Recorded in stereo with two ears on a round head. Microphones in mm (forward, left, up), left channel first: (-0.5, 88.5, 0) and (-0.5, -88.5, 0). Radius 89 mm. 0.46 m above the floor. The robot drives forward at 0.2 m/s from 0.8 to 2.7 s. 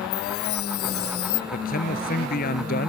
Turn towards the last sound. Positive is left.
turn(degrees=50)  # may be behind; listen again after turning